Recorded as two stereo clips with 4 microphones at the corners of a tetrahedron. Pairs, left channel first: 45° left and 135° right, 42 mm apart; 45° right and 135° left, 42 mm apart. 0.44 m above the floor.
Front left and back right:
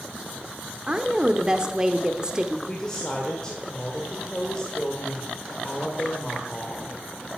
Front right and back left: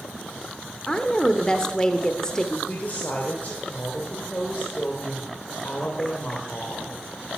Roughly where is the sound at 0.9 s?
Right.